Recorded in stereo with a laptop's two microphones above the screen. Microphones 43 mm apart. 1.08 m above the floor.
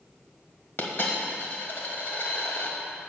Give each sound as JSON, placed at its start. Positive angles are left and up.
{"t": 0.8, "sound": "a dropped coin", "side_deg": 55, "distance_m": 1.3}